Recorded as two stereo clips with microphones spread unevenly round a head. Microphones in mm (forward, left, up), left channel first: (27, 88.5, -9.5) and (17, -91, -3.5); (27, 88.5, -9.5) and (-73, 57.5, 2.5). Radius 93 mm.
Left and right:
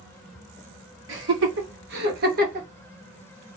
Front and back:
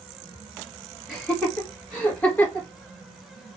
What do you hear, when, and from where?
1.1 s laughter: 70° right, 2 m; by 2.7 s 50° right, 1.3 m